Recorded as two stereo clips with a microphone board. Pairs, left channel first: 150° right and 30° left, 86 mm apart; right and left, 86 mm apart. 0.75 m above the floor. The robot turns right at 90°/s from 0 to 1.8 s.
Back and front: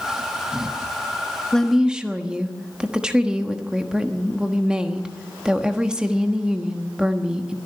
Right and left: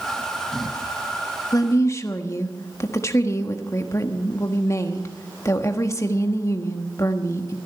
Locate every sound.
1.5 s a woman speaking: 75° right, 1.2 m; by 7.6 s 50° right, 1.2 m